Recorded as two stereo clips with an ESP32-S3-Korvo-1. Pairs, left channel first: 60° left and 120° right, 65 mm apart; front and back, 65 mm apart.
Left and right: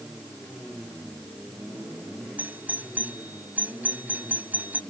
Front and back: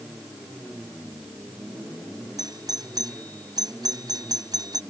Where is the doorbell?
175° left.